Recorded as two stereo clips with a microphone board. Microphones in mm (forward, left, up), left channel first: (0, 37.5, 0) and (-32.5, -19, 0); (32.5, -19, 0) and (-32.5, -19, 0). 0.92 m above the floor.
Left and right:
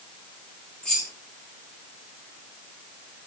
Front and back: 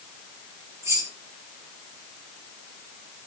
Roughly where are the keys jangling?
Behind left.